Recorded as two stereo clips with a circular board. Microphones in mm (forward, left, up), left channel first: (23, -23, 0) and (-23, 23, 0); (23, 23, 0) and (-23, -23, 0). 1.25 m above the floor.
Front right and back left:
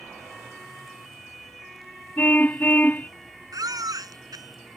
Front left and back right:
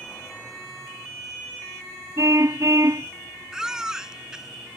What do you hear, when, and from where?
2.2 s a car horn: 105° right
3.5 s a baby crying: 145° left